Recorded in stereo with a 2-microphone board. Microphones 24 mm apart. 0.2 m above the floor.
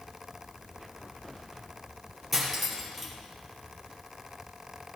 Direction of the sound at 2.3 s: Centre (ahead or behind).